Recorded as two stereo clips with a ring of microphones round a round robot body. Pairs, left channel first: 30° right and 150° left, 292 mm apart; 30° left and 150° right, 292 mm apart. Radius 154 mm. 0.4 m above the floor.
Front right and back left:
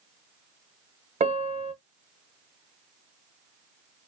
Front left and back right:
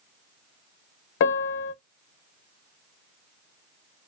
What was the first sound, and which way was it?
A piano, 80° left.